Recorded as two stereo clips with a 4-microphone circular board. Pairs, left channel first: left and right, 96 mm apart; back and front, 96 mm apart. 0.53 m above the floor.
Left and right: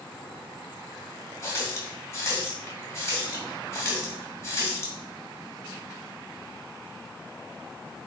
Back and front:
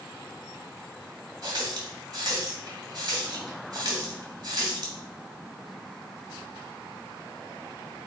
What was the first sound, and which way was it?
A running tap, 35° left.